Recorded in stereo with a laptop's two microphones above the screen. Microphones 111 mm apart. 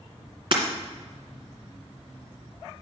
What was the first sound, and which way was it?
Breaking glass, 50° right (ahead or behind).